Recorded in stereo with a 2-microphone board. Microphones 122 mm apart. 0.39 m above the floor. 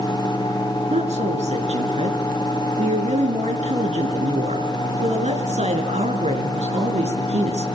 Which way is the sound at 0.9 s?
65° right (ahead or behind).